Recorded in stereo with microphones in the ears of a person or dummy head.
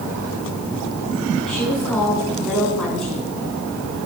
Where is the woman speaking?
Centre (ahead or behind), 9 m.